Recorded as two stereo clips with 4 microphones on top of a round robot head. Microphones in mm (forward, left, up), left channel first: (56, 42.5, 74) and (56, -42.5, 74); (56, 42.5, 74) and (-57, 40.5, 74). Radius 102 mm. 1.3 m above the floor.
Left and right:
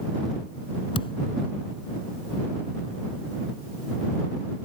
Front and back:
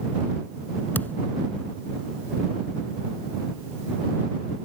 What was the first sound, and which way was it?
A thud, 75° left.